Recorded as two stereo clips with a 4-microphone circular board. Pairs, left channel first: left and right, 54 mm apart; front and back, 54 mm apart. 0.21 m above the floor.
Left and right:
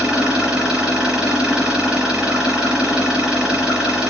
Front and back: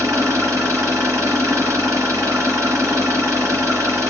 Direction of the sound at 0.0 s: 165° right.